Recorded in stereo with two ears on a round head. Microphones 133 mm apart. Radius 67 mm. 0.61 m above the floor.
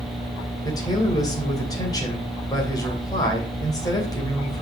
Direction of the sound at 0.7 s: 25° left (ahead or behind).